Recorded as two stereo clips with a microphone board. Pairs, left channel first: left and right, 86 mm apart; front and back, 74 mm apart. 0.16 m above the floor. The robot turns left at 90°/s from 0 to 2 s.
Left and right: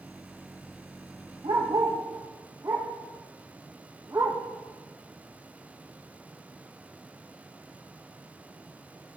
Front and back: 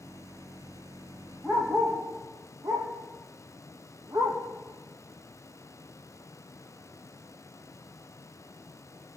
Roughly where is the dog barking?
Right.